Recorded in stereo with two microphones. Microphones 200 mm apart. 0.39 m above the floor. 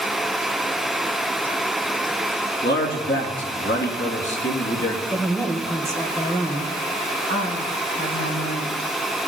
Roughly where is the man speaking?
Left.